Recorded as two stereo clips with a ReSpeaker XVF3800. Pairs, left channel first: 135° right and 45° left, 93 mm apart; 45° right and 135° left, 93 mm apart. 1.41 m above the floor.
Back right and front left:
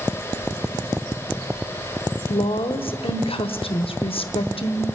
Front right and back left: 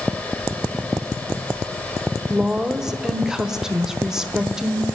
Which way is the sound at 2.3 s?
140° right.